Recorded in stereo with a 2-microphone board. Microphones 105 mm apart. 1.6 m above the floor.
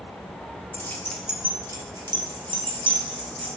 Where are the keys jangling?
30° left (ahead or behind), 0.9 m; by 3.5 s 55° right (ahead or behind), 2.5 m.